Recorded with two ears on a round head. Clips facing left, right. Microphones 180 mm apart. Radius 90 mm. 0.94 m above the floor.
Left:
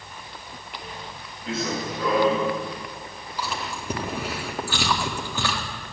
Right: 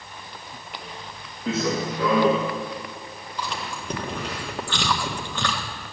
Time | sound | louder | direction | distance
1.5 | running footsteps | right 4 dB | 60° right (ahead or behind) | 3.5 m
3.4 | chewing | left 1 dB | 5° left (ahead or behind) | 1.7 m